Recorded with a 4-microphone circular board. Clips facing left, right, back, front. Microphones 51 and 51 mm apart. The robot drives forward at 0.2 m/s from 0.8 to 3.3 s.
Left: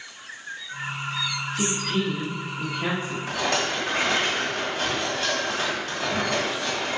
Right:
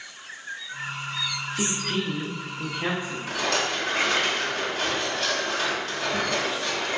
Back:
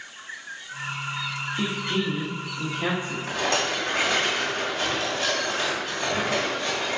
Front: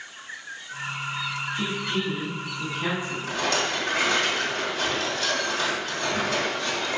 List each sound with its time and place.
1.6 s a woman speaking: 130° right, 0.6 m; by 3.2 s 145° right, 0.9 m
3.3 s a rattle: 175° left, 1.3 m